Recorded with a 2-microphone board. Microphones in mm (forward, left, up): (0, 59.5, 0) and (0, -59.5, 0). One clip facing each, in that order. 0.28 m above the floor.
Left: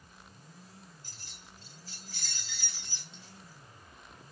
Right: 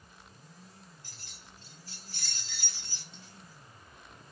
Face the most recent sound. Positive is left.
turn(degrees=-50)  # may be behind; listen again after turning